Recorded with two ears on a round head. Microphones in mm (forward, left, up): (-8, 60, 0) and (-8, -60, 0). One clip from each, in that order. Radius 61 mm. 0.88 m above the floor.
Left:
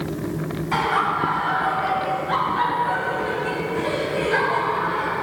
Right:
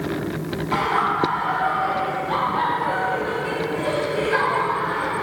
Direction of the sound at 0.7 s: 15° left (ahead or behind).